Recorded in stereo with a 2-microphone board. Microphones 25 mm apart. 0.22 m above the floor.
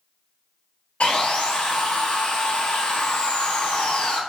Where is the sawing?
60° left (ahead or behind), 0.6 m.